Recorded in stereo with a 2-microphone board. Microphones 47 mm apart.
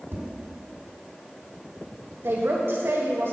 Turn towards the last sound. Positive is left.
turn(degrees=-60)  # may be behind; listen again after turning